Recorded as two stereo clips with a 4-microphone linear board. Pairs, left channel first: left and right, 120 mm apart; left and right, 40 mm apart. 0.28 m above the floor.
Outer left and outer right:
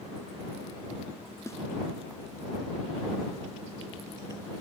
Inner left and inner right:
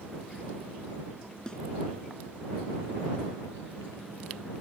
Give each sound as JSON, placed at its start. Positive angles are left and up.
{"t": 1.5, "sound": "a snare drum", "side_deg": 25}